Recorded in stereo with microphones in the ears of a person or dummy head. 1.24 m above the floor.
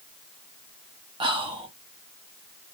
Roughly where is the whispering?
Right.